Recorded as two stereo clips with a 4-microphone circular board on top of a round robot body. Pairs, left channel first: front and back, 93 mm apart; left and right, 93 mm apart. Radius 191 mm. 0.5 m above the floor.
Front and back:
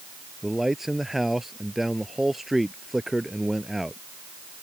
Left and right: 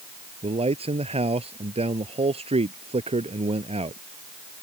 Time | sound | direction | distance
0.4 | a man speaking | 90° right | ?